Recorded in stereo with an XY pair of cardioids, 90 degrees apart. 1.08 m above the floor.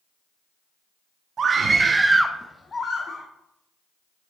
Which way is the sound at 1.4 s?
55° right.